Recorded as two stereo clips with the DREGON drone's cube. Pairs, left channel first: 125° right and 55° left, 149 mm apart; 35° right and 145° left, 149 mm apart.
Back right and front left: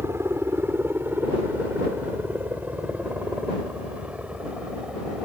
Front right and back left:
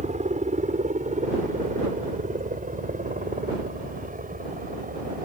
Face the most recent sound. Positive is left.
turn(degrees=140)